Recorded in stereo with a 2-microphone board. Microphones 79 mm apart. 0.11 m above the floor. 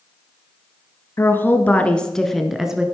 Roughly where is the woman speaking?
Left.